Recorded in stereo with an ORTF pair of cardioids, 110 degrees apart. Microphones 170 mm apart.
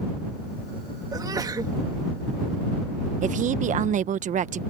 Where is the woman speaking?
50° right.